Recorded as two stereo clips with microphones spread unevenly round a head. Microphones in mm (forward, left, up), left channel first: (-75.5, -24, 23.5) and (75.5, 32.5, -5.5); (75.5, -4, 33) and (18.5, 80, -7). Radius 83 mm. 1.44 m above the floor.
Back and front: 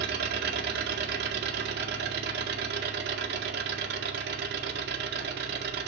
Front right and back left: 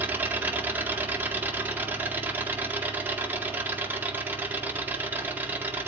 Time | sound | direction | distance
0.0 | an engine running | 45° left | 1.8 m